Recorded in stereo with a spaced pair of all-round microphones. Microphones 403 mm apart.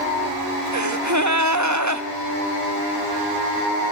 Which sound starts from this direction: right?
A gasp, at 0.7 s.